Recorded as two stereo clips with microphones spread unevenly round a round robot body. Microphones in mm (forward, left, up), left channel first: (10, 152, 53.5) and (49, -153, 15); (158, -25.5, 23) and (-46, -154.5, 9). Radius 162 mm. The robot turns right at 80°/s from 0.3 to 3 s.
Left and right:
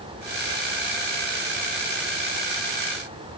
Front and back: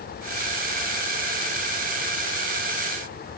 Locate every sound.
Only background noise.